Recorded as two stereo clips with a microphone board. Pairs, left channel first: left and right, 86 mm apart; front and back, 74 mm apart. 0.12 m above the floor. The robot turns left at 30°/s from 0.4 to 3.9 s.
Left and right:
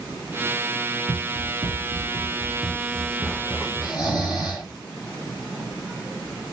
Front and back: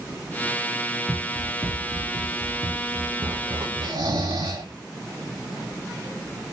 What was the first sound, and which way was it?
Running footsteps, 80° right.